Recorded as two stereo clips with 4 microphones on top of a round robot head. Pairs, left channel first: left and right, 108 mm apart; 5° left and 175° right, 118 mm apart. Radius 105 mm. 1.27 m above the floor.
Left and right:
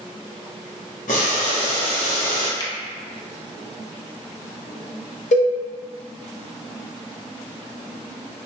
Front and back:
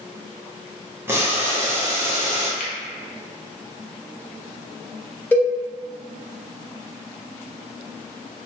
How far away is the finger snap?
About 0.7 m.